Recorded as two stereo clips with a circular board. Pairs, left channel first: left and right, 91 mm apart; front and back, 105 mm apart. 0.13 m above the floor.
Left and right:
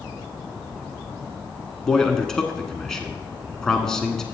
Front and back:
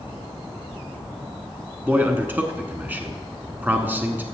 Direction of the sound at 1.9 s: 160° left.